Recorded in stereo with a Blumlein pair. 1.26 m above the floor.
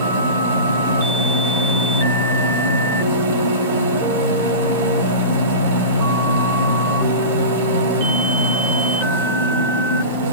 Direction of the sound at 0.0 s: 60° right.